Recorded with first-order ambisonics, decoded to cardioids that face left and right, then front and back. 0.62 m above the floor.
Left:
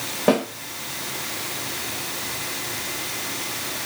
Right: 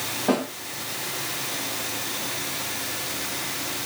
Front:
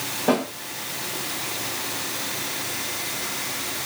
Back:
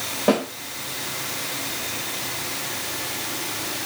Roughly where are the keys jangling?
I don't hear keys jangling.